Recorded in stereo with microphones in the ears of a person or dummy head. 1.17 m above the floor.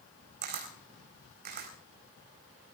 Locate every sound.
0.4 s a camera shutter: 45° right (ahead or behind), 4 m